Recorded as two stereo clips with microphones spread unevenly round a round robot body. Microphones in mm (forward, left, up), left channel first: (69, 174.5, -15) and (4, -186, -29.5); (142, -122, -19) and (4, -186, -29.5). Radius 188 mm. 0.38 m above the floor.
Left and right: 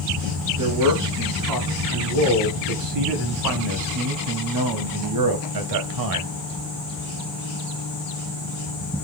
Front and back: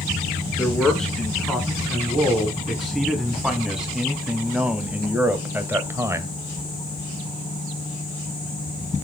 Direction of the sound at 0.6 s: 60° right.